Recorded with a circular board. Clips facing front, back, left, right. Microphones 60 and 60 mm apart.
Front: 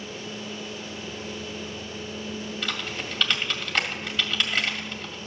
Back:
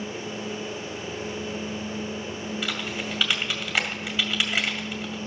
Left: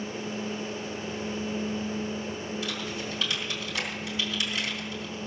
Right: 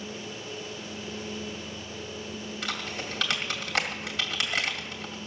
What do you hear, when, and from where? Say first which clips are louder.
2.6 s typing on a keyboard: back 1 dB, left 1 dB; 100° right, 2 m